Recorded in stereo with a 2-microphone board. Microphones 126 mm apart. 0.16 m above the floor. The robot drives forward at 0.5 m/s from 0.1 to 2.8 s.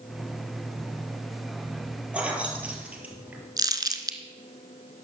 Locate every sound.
2.1 s keys jangling: 10° right (ahead or behind), 3 m
3.6 s crumpling: 30° right (ahead or behind), 1.1 m